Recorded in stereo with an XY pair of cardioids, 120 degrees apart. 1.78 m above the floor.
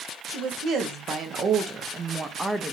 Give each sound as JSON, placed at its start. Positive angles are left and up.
{"t": 0.3, "sound": "a woman speaking", "azimuth_deg": -65, "distance_m": 1.9}